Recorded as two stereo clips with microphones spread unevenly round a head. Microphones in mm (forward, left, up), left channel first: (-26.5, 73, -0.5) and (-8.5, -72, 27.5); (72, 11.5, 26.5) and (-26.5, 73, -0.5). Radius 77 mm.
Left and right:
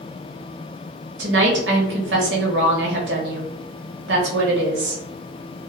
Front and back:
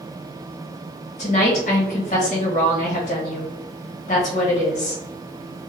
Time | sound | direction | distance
1.2 | a woman speaking | 80° right | 1.2 m